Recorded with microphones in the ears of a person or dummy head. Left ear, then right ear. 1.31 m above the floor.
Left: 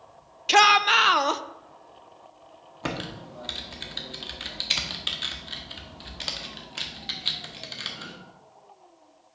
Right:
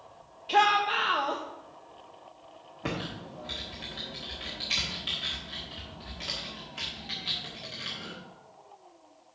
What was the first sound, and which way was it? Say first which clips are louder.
A shout: left 6 dB; 70° left (ahead or behind).